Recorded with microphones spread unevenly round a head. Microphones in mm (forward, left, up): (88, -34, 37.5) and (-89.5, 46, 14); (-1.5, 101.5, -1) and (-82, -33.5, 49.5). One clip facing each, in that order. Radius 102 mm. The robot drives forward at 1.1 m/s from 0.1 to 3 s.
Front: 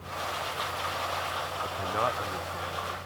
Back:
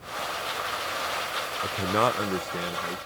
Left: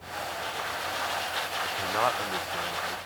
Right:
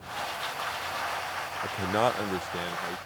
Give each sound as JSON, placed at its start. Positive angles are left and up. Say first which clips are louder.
{"t": 1.6, "sound": "a man speaking", "louder": "back 7 dB, right 3 dB", "azimuth_deg": -150}